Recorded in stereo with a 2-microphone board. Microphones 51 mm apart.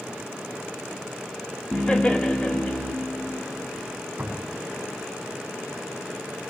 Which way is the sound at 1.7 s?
20° left (ahead or behind).